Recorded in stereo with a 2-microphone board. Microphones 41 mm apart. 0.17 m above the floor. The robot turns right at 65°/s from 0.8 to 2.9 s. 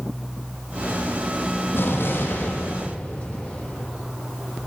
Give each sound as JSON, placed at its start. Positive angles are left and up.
{"t": 1.7, "sound": "an explosion", "azimuth_deg": 65, "distance_m": 5.5}